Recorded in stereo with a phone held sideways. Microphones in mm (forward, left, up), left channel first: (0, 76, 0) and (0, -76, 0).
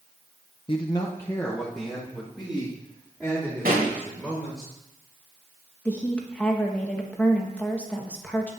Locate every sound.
0.7 s a man speaking: 35° left (ahead or behind), 0.7 m; by 4.7 s 10° right (ahead or behind), 4.5 m
3.6 s a pop: 75° right (ahead or behind), 3 m
5.8 s a woman speaking: 10° left (ahead or behind), 1.5 m